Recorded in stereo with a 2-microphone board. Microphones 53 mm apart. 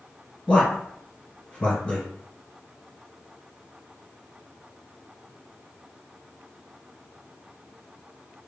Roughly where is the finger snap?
No finger snap in this recording.